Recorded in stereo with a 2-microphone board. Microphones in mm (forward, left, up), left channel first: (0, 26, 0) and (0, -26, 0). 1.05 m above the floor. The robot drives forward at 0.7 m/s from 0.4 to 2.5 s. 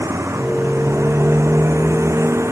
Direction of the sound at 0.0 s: 75° right (ahead or behind).